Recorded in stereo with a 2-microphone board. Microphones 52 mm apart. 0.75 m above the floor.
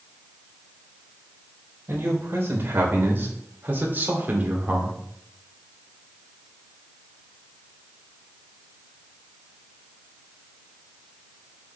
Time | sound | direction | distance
1.9 | a man speaking | 50° right (ahead or behind) | 3.5 m